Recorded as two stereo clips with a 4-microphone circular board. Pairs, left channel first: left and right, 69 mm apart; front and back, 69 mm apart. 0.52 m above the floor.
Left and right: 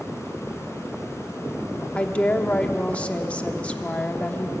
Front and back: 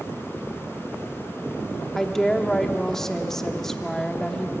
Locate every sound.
1.9 s a woman speaking: 70° left, 1.0 m